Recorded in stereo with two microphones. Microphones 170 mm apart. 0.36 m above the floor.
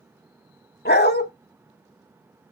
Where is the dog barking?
80° left, 0.9 m.